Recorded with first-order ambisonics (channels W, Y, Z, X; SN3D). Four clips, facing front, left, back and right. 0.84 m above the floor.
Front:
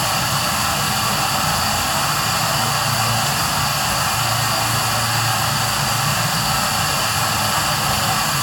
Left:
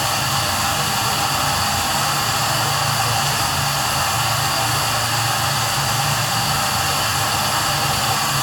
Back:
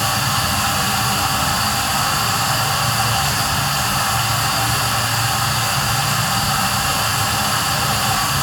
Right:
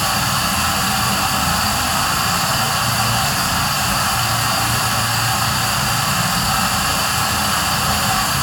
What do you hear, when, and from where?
0.0 s running water: 120° right, 2.5 m